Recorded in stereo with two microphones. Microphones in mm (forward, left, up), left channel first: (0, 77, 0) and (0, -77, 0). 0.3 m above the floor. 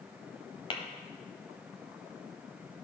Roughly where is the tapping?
Left.